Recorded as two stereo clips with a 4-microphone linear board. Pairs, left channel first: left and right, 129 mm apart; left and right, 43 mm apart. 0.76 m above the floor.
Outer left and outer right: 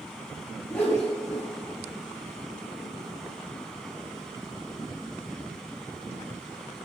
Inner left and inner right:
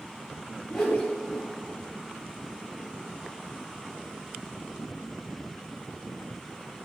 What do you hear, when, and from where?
0.7 s a whoosh: 5° left (ahead or behind), 4.5 m